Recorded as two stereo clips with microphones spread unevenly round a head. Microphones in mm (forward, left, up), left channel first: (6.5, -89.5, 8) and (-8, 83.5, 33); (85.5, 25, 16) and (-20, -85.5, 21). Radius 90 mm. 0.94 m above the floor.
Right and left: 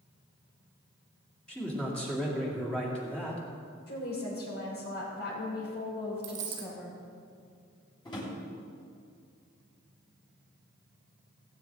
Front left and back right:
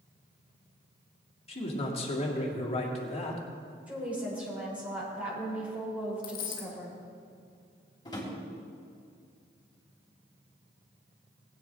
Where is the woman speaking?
55° right, 3.5 m.